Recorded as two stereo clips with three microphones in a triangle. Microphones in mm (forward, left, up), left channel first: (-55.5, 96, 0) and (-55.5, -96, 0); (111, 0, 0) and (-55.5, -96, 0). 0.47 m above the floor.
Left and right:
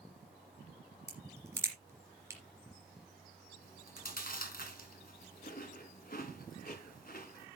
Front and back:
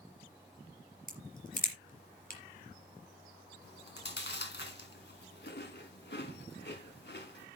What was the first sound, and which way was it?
A crack, 15° right.